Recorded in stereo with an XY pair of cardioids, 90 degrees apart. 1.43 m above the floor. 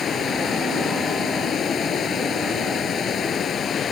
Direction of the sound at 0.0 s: 60° left.